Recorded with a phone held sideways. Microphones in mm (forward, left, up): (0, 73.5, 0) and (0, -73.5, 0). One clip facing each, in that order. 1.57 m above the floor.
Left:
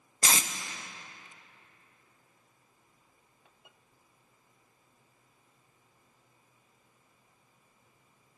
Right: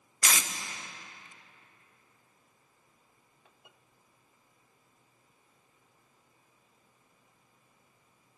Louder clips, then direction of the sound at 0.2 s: Left 2 dB; 30° left (ahead or behind).